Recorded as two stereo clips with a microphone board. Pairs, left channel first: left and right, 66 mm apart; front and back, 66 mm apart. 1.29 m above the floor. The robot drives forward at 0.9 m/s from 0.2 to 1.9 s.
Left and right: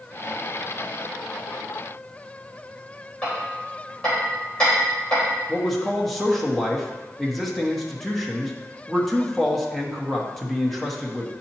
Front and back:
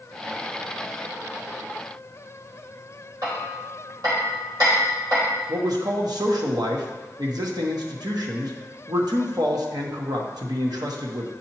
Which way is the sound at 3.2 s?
170° left.